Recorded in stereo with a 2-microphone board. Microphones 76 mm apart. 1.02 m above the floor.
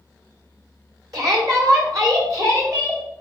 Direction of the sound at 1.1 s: 50° right (ahead or behind).